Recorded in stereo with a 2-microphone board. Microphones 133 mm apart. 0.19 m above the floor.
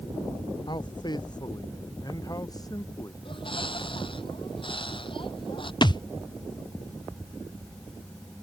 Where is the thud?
35° left (ahead or behind).